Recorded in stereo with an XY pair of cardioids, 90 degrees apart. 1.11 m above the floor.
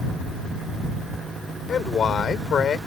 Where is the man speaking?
60° left.